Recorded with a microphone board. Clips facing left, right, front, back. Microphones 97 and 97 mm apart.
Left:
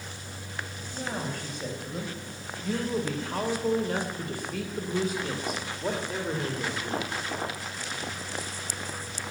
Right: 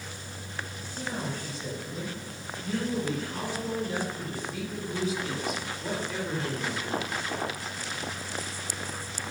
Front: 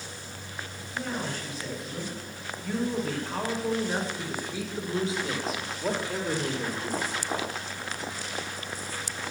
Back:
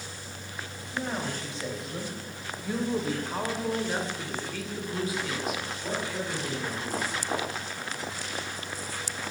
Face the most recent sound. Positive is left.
turn(degrees=25)